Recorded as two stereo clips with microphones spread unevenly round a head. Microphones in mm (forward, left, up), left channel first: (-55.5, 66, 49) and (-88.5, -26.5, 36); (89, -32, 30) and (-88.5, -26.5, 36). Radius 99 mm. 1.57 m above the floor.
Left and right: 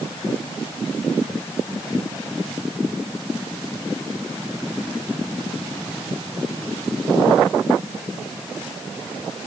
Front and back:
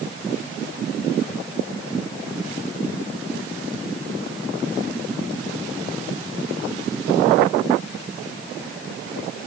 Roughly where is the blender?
No blender in this recording.